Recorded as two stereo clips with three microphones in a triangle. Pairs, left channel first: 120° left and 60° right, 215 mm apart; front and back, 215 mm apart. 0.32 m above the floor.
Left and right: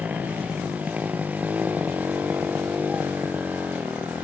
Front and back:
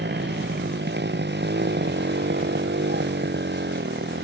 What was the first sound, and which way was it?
A motorcycle, 145° right.